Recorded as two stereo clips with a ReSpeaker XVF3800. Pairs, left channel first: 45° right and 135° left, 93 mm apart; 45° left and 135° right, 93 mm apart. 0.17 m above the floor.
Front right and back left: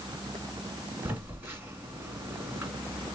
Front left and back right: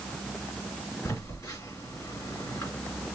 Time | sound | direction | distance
1.1 | a phone buzzing | 75° left | 1.9 m